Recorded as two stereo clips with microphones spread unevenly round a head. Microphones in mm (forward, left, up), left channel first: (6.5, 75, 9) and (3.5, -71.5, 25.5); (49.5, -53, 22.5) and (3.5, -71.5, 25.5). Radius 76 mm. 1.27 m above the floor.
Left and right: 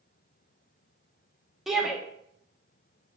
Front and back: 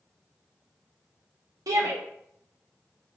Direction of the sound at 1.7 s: Straight behind.